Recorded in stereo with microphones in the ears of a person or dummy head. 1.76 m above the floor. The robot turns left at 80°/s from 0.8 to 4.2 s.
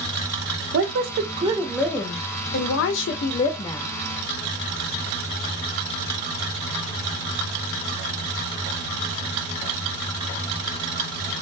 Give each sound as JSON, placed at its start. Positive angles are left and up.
{"t": 0.7, "sound": "a woman speaking", "azimuth_deg": -95, "distance_m": 0.6}